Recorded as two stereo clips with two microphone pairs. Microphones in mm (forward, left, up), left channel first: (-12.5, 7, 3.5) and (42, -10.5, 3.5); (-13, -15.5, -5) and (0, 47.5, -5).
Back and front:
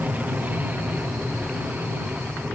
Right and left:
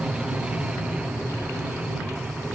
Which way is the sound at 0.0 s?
15° left.